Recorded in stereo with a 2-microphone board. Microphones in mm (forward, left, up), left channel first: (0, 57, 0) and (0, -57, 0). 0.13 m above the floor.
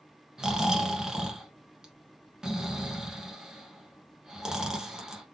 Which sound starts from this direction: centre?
Snoring, at 0.4 s.